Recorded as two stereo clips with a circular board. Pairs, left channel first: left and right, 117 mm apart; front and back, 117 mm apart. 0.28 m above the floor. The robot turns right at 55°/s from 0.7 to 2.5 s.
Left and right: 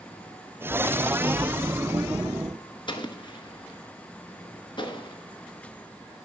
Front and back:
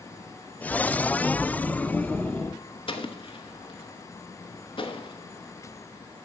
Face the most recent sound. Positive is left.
turn(degrees=40)